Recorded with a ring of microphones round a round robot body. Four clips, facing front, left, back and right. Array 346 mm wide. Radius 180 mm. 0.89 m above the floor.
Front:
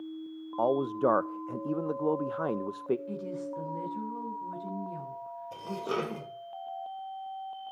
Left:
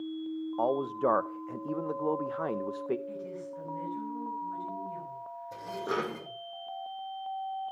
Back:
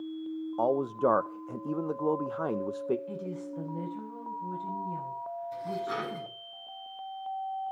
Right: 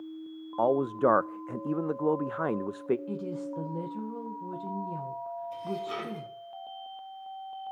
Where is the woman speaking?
85° right, 3.5 m.